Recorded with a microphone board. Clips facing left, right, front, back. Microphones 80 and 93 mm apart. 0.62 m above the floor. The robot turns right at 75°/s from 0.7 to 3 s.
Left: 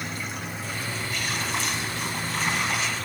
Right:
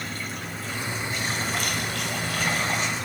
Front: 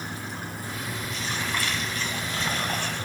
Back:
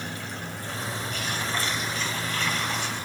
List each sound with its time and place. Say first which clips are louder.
0.0 s running water: even, even; straight behind, 5 m; by 3.0 s 10° right, 5 m